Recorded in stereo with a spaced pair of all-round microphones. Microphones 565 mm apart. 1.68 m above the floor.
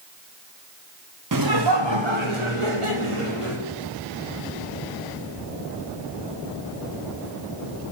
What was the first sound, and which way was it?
Laughter, 35° right (ahead or behind).